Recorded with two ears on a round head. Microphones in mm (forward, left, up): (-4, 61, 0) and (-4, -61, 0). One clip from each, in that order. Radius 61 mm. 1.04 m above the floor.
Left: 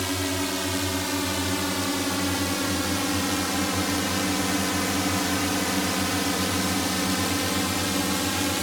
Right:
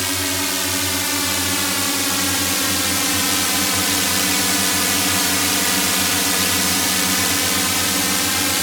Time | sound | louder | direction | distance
0.0 | a drone | right 6 dB | 40° right (ahead or behind) | ?